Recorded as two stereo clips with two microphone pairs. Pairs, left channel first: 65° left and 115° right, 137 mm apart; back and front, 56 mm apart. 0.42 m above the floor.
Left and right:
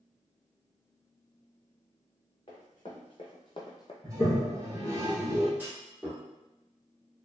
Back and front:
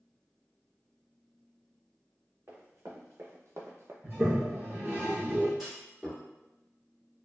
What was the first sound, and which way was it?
Running footsteps, 20° left.